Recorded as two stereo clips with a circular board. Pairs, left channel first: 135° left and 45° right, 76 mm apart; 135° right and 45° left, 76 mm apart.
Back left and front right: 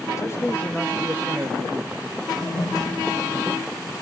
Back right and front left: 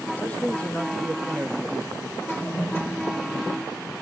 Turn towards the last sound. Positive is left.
turn(degrees=165)